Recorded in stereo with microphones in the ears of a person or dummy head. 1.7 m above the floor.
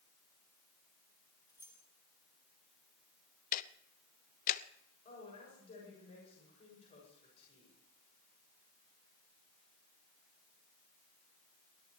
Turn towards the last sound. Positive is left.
turn(degrees=35)  # may be behind; listen again after turning